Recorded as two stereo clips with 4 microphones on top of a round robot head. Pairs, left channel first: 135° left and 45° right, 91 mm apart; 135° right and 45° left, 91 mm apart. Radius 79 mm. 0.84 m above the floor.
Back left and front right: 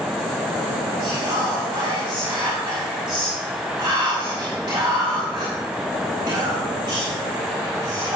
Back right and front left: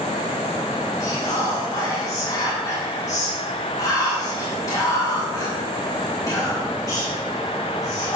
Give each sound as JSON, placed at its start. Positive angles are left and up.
{"t": 1.0, "sound": "whispering", "azimuth_deg": -85, "distance_m": 5.5}